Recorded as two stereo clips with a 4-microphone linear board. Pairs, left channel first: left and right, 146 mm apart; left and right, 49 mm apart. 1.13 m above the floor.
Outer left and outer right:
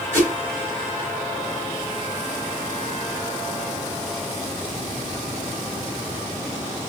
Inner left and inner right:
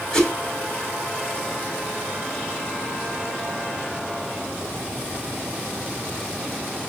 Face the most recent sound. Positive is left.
turn(degrees=20)  # may be behind; listen again after turning